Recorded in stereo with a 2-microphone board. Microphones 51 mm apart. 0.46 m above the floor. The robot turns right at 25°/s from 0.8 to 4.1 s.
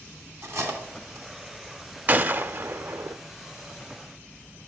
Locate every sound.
0.4 s cutlery clinking: 60° right (ahead or behind), 2.5 m; by 1.3 s 70° right (ahead or behind), 2.5 m
2.1 s a gunshot: 35° right (ahead or behind), 0.6 m; by 3.2 s 55° right (ahead or behind), 0.6 m